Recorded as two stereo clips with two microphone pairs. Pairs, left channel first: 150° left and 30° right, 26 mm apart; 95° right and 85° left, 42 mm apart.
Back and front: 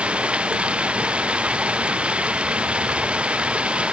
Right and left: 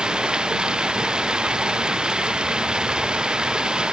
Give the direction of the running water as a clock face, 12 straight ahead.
12 o'clock.